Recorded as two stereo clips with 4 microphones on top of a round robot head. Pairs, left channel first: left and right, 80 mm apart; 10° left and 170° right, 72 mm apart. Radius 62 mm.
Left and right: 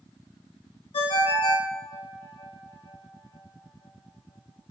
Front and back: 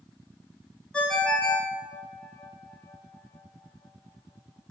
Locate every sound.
0.9 s a ringtone: 90° left, 1.2 m